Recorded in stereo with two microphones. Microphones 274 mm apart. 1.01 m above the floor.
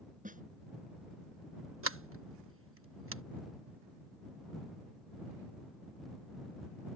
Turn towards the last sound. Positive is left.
turn(degrees=-50)  # may be behind; listen again after turning